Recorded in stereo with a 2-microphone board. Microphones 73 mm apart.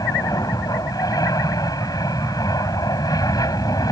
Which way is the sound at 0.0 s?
65° left (ahead or behind).